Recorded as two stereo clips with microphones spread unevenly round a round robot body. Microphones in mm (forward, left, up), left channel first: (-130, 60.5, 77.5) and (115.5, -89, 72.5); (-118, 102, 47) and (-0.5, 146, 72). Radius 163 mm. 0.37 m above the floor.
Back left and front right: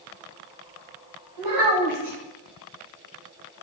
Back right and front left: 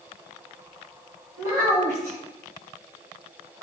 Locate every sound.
1.4 s a child speaking: 15° right, 1.4 m